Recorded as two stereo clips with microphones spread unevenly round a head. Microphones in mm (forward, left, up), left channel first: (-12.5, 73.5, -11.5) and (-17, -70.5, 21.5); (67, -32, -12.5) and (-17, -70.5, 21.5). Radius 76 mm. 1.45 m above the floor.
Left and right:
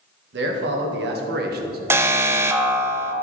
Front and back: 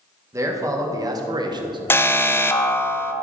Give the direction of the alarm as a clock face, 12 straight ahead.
2 o'clock.